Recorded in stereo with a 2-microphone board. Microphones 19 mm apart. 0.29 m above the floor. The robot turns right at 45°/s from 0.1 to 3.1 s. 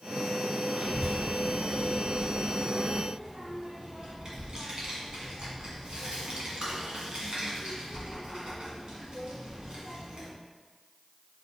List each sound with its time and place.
0.8 s a child speaking: 20° right (ahead or behind), 1.8 m; by 10.3 s 45° right (ahead or behind), 1.8 m